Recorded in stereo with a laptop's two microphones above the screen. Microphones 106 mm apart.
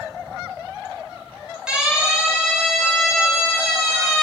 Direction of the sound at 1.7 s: 10° right (ahead or behind).